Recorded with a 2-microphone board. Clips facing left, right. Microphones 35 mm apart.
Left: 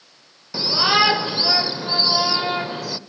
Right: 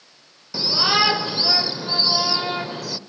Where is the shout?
15° left (ahead or behind), 1.1 m.